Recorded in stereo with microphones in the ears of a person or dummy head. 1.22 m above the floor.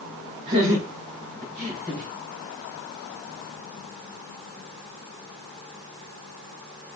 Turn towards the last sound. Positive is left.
turn(degrees=-30)  # may be behind; listen again after turning